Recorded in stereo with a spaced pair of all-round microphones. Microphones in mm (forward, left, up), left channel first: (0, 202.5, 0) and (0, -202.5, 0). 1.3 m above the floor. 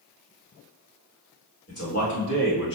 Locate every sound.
1.7 s a man speaking: 35° left (ahead or behind), 1.4 m; by 2.8 s 55° left (ahead or behind), 1.6 m